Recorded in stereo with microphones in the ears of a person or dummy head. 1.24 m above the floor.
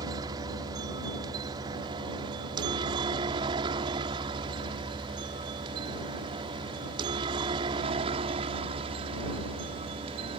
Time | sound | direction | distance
0.0 | a helicopter | 20° right (ahead or behind) | ?